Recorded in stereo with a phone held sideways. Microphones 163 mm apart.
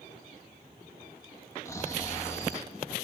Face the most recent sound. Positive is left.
turn(degrees=20)  # may be behind; listen again after turning